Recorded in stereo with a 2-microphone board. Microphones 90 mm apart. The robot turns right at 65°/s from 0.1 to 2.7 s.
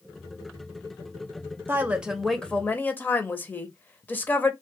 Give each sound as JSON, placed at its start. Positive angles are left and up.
{"t": 1.7, "sound": "a woman speaking", "azimuth_deg": -35, "distance_m": 0.6}